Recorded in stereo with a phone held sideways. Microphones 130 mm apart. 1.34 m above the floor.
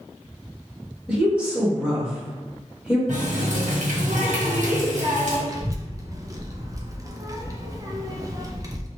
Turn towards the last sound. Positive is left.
turn(degrees=-25)  # may be behind; listen again after turning